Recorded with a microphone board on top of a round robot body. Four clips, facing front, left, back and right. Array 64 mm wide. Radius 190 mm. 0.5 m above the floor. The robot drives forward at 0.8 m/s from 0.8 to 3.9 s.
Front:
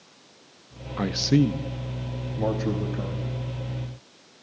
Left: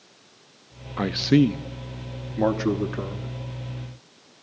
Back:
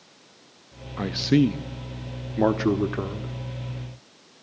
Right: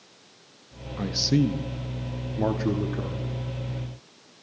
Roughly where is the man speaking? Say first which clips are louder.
Left 5 dB, back 1 dB; left.